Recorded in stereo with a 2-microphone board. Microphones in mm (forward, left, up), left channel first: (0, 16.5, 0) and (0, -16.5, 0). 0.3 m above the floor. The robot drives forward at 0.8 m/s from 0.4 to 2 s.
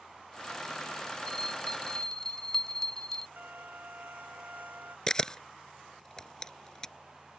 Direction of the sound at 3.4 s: 60° right (ahead or behind).